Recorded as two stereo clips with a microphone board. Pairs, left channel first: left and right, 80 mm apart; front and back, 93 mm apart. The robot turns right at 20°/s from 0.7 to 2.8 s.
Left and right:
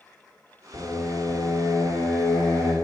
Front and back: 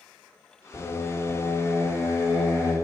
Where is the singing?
50° left, 1.0 m; by 2.7 s 90° left, 1.0 m.